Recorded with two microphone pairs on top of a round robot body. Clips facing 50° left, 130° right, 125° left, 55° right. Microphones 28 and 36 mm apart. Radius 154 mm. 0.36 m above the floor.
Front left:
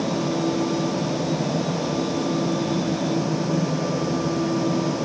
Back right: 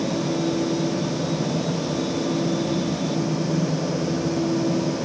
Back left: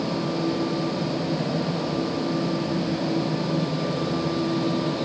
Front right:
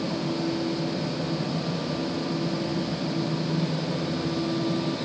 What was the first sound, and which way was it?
Only background noise.